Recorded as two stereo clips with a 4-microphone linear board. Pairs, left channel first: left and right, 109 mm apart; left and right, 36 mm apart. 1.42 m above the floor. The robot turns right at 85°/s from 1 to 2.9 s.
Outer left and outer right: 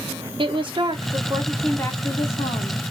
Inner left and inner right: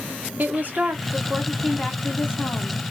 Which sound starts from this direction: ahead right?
A woman speaking, at 0.4 s.